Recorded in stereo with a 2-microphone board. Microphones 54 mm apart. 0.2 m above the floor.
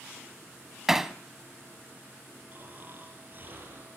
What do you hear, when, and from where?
0.9 s hammering: 5° right (ahead or behind), 0.7 m
2.5 s snoring: 40° right (ahead or behind), 6 m